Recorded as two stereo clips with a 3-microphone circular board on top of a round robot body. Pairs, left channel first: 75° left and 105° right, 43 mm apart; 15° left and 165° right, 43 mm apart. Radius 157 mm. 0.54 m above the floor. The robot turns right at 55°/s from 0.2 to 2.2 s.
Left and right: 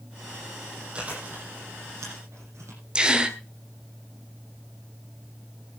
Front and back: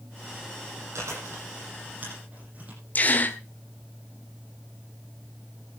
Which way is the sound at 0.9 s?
170° right.